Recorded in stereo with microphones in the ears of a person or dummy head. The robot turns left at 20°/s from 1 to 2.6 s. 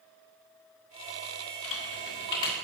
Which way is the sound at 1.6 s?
65° left (ahead or behind).